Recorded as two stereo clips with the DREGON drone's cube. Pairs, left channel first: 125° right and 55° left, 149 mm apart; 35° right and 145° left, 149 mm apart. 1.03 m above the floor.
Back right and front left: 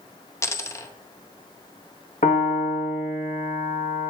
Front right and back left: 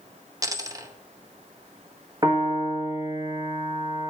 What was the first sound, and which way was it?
A dropped coin, 175° right.